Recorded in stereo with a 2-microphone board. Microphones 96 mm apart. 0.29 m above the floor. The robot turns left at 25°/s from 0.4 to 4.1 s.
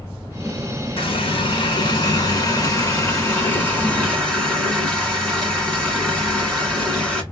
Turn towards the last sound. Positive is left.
turn(degrees=10)